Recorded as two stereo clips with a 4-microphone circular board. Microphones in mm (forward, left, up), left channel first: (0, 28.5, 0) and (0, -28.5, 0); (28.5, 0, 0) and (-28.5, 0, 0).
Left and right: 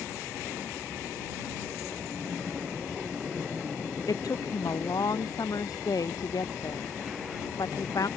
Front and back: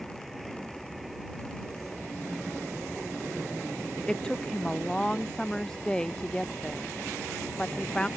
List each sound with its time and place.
4.1 s a woman speaking: 75° left